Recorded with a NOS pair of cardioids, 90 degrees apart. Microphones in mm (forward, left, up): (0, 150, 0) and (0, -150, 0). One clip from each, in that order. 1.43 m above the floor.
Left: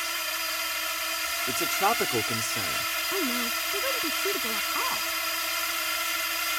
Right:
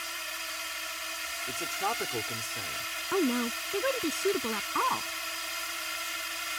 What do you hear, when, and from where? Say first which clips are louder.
0.0 s a drone: left 6 dB; 45° left
1.5 s a man speaking: left 7 dB; 50° left
3.1 s a woman speaking: left 2 dB; 30° right